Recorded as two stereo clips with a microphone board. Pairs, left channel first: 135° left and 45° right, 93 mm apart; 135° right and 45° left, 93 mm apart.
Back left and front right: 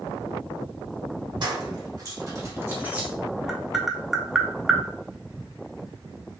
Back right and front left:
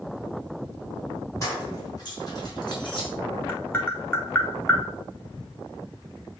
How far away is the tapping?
About 0.6 m.